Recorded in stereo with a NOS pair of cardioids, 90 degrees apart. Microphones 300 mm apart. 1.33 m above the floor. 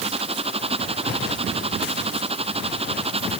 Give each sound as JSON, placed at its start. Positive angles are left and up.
{"t": 0.0, "sound": "a machine running", "azimuth_deg": -20}